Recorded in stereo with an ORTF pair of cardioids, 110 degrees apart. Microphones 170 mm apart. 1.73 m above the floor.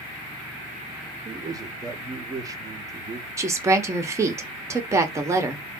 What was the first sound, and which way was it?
A man speaking, 20° right.